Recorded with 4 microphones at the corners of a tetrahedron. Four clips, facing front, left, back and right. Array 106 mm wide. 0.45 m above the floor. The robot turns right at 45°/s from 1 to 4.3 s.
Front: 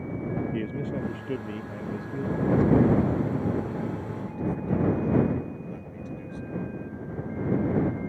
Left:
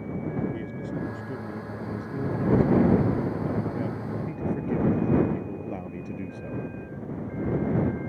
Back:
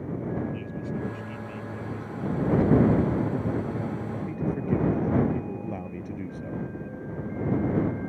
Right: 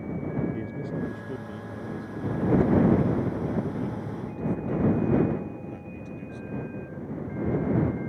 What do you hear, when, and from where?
0.5 s a man speaking: 15° right; by 6.7 s 135° left